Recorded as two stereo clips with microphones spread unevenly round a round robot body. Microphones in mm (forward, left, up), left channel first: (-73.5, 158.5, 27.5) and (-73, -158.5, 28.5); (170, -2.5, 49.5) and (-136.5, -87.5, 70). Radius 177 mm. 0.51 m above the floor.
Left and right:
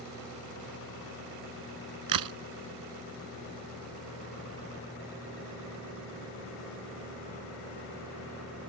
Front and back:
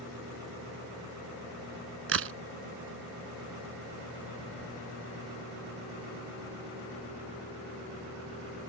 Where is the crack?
115° right.